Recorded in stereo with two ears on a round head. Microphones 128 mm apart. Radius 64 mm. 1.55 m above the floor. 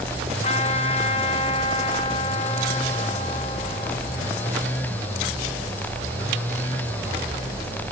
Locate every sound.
0.4 s a trumpet: 45° left (ahead or behind), 3.5 m